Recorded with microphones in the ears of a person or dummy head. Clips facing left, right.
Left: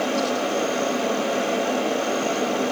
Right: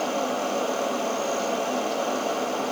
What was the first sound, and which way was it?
Only background noise.